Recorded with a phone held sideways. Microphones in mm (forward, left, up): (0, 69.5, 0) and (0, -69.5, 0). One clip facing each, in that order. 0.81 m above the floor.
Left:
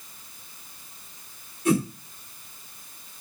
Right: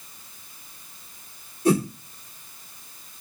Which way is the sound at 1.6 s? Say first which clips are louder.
Right 2 dB; 35° right (ahead or behind).